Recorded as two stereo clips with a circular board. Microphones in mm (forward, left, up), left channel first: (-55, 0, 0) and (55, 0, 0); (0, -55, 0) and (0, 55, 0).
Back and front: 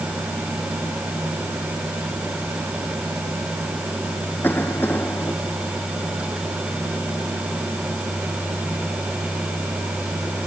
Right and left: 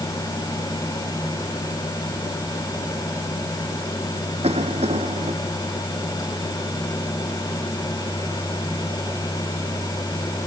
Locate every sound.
4.4 s a cough: 110° left